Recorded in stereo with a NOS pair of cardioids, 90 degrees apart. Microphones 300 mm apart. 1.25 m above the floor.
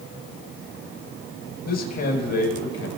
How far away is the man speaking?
About 5.5 m.